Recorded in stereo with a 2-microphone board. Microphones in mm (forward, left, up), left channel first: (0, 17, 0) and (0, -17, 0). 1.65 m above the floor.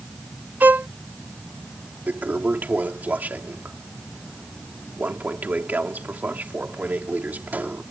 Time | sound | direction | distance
0.6 | a violin | 80° right | ?
2.1 | a toilet flushing | 70° right (ahead or behind) | ?